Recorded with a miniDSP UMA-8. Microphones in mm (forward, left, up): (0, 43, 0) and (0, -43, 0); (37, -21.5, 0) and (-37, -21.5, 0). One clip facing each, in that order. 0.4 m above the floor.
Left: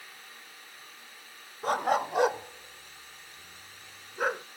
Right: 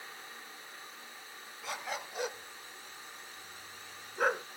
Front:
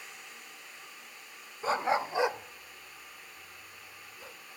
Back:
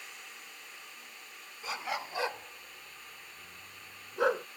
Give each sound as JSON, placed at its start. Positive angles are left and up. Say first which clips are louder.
{"t": 1.6, "sound": "a dog barking", "louder": "left 13 dB, front 9 dB", "azimuth_deg": 50}